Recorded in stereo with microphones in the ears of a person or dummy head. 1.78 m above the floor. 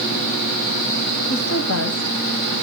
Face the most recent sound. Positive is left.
turn(degrees=90)